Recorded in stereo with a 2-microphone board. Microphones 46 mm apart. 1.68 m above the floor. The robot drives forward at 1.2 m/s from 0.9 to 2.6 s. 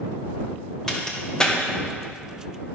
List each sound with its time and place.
0.9 s a crack: 10° left (ahead or behind), 1.7 m; by 1.6 s 15° left (ahead or behind), 0.9 m